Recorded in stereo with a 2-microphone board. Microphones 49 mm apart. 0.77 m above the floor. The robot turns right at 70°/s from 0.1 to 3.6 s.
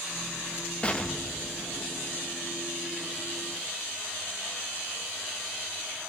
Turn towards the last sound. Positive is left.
turn(degrees=-50)